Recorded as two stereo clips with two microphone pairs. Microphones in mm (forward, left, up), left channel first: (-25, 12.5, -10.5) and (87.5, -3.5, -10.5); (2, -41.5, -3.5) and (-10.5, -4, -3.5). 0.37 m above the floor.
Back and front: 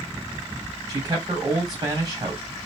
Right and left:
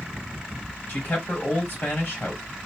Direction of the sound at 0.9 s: 60° right.